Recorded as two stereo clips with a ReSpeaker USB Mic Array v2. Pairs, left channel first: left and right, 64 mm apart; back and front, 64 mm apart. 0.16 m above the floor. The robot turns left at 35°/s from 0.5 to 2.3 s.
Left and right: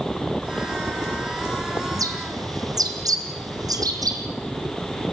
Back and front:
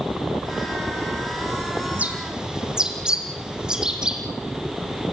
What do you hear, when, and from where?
1.9 s a bird: 65° right, 3 m; by 4.2 s 80° right, 3 m